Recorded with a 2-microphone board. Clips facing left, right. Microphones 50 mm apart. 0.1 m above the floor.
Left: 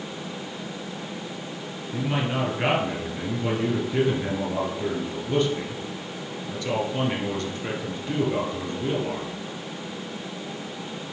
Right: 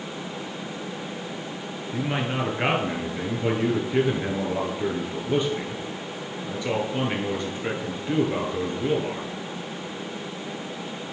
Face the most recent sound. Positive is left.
turn(degrees=-15)  # may be behind; listen again after turning